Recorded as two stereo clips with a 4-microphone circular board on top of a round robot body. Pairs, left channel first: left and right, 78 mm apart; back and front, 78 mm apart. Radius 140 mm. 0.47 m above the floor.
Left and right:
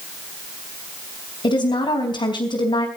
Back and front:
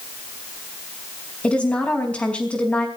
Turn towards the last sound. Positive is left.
turn(degrees=105)